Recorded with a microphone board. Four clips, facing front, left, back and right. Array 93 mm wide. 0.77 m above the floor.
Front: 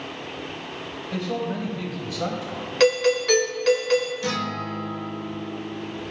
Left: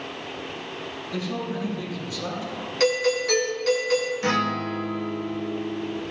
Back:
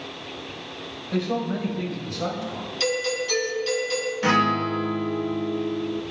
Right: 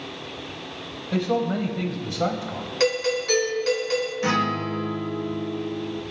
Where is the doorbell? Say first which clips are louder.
Left 1 dB, front 8 dB; 5° right, 3.5 m.